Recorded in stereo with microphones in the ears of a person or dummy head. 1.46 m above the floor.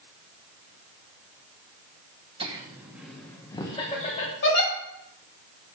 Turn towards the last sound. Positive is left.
turn(degrees=70)  # may be behind; listen again after turning